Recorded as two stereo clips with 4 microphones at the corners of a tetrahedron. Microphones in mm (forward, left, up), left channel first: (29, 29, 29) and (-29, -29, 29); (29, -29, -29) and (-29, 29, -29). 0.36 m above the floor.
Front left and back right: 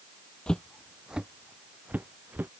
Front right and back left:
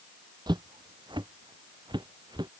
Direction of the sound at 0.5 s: 120° left.